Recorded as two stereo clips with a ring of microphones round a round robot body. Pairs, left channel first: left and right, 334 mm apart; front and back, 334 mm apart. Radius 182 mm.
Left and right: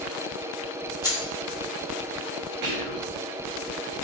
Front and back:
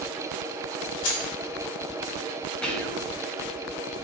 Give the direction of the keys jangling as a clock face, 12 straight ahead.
12 o'clock.